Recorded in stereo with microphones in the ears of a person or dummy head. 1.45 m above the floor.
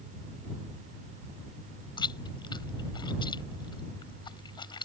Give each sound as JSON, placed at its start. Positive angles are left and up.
{"t": 2.0, "sound": "chewing", "side_deg": 20}